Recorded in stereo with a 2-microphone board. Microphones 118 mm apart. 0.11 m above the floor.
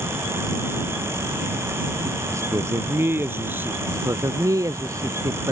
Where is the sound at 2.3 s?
25° right (ahead or behind); by 3.8 s 15° right (ahead or behind).